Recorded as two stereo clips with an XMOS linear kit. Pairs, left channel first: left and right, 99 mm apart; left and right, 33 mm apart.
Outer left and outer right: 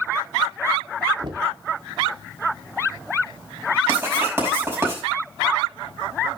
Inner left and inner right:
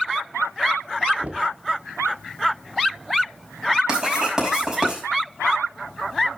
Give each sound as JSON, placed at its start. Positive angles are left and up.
{"t": 1.2, "sound": "knocking", "side_deg": -50, "distance_m": 1.5}
{"t": 3.9, "sound": "writing", "side_deg": -20, "distance_m": 5.5}